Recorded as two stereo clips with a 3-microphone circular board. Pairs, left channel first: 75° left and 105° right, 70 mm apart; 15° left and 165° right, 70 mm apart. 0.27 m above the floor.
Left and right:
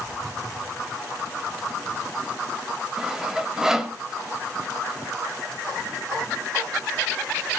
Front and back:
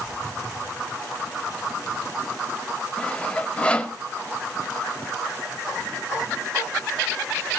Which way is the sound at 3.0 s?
35° right.